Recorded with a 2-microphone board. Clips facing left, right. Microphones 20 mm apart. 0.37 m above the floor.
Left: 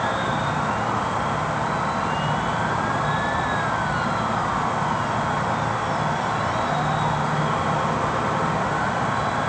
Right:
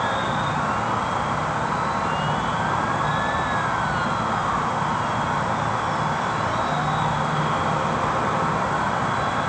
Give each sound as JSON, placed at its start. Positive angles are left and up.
{"t": 0.0, "sound": "an insect", "side_deg": -15, "distance_m": 2.5}